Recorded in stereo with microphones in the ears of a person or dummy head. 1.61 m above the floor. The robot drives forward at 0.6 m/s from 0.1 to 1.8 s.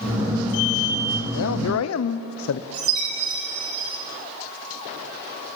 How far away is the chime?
About 7 m.